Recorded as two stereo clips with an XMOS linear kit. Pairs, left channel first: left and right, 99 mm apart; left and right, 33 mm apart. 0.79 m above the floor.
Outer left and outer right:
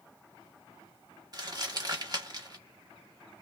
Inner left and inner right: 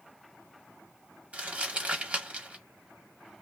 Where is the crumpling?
45° right (ahead or behind), 0.8 m.